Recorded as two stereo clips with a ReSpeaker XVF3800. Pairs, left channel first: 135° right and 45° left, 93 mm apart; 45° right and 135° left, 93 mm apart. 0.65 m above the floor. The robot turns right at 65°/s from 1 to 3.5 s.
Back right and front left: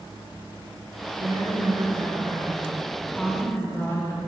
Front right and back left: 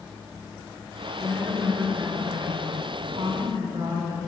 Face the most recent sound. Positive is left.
turn(degrees=165)